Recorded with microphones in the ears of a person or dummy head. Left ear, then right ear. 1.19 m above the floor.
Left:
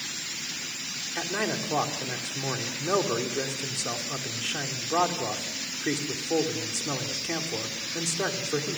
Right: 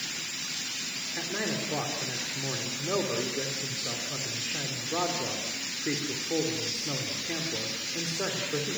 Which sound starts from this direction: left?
A man speaking, at 1.1 s.